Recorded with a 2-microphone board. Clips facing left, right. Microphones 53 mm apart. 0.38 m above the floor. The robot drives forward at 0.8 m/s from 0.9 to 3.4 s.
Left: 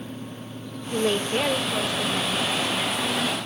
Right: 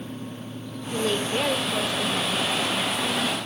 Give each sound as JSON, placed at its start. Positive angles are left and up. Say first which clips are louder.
{"t": 0.9, "sound": "a woman speaking", "louder": "left 2 dB", "side_deg": 20, "distance_m": 0.9}